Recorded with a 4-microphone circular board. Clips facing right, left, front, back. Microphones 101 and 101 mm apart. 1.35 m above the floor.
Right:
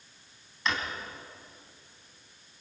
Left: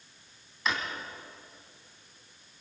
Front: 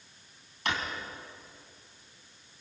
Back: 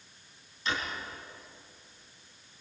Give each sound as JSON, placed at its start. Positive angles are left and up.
{"t": 0.7, "sound": "a drawer", "azimuth_deg": 5, "distance_m": 4.0}